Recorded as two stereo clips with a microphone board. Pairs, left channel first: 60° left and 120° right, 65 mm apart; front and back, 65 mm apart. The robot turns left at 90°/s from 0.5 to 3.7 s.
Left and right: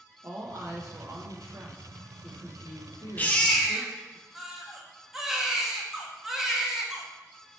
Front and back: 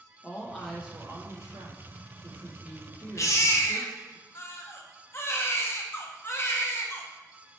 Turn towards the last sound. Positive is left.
turn(degrees=-35)